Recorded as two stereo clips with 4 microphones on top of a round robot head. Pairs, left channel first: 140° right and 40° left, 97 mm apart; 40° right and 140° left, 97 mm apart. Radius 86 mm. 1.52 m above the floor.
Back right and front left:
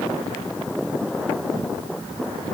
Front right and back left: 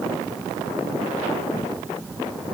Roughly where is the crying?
No crying in this recording.